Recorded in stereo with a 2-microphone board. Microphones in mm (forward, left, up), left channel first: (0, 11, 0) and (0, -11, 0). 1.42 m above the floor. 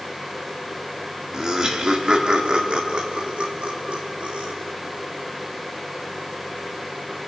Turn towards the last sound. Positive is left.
turn(degrees=-70)  # may be behind; listen again after turning